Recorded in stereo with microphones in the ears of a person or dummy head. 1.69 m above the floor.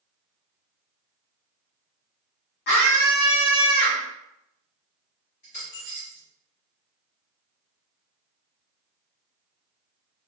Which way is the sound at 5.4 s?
25° left (ahead or behind).